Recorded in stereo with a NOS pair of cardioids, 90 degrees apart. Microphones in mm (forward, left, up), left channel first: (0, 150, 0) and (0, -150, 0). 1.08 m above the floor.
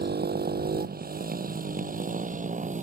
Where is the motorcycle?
30° right; by 2.8 s 25° right.